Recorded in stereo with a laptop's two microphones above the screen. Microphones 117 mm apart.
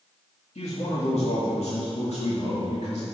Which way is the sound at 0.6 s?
75° left (ahead or behind).